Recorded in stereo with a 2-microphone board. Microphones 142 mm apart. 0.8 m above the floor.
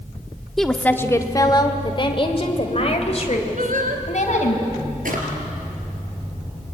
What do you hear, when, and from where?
0.6 s a woman speaking: centre (ahead or behind), 1.4 m; by 4.6 s 55° left (ahead or behind), 5 m
3.6 s singing: 70° right (ahead or behind), 2 m
5.0 s a drawer: 75° right (ahead or behind), 4 m